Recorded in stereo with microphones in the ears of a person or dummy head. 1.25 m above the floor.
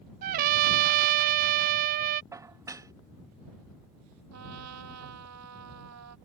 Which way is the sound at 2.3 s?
15° right (ahead or behind).